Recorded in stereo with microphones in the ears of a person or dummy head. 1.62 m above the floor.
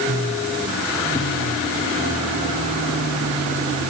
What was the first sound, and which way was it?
Only background noise.